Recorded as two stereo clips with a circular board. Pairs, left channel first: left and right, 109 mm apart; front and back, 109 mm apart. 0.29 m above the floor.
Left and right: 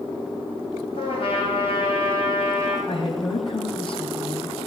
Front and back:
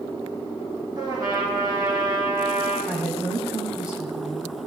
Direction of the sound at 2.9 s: 100° left.